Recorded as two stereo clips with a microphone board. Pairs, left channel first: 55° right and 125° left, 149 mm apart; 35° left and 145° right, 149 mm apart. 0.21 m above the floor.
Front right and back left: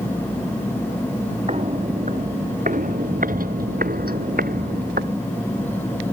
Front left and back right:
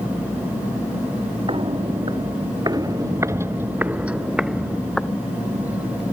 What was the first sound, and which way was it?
Footsteps, 165° left.